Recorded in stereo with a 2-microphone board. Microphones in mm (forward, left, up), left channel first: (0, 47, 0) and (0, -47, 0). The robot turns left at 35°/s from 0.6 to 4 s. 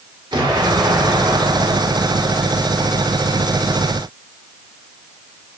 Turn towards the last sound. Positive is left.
turn(degrees=175)